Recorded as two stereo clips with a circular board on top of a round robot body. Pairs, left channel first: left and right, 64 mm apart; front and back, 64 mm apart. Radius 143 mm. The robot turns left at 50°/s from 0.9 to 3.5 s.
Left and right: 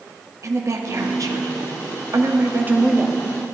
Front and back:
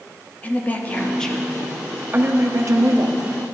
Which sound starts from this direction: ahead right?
A woman speaking, at 0.4 s.